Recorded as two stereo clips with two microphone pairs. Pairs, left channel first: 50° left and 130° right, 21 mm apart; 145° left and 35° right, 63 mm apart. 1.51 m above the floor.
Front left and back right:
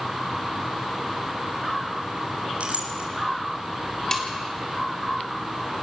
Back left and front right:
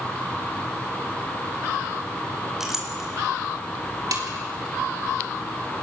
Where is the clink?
120° right, 4 m.